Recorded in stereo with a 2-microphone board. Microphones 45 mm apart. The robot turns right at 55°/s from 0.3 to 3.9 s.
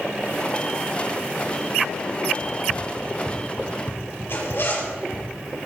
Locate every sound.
2.4 s running footsteps: 65° left (ahead or behind), 2 m; by 5.3 s 55° right (ahead or behind), 3.5 m
4.3 s a zipper: 55° left (ahead or behind), 6 m